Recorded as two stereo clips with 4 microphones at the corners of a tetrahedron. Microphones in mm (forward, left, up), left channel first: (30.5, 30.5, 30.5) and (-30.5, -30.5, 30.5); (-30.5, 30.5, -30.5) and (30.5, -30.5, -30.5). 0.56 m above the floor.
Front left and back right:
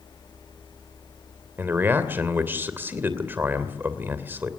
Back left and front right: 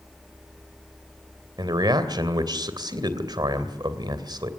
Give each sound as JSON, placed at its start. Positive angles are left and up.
{"t": 1.6, "sound": "a man speaking", "azimuth_deg": -70, "distance_m": 2.5}